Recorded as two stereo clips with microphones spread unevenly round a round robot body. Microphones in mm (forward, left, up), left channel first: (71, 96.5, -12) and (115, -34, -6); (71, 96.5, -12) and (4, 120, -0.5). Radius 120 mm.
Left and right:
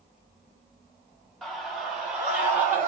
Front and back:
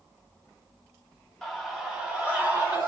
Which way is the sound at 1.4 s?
35° left.